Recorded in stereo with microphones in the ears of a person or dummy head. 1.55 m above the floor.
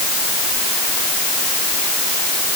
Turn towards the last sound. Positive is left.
No sound to turn to.